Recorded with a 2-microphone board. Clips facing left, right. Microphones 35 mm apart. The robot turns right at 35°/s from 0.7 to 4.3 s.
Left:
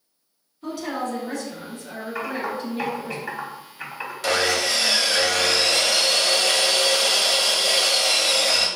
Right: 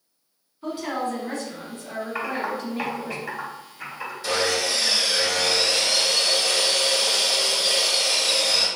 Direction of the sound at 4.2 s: 80° left.